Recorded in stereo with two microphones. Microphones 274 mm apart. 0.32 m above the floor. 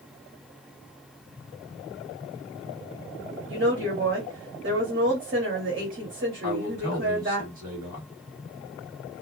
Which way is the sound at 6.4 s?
30° right (ahead or behind).